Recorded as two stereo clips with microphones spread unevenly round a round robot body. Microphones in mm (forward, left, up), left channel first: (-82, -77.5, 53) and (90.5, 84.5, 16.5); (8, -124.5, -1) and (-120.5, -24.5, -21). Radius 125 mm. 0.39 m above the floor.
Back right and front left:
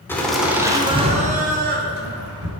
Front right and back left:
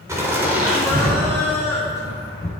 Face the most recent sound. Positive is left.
turn(degrees=40)